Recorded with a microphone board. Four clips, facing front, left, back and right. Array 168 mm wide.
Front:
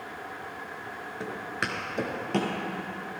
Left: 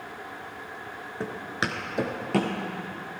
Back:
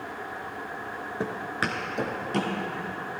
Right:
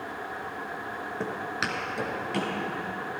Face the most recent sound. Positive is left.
turn(degrees=65)